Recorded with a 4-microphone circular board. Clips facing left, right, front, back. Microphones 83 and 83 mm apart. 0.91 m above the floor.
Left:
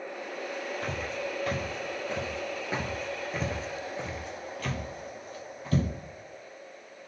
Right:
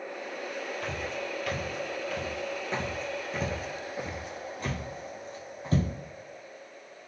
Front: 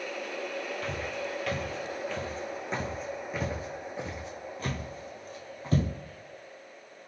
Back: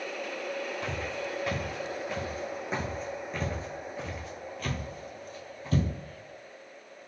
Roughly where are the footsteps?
Behind left.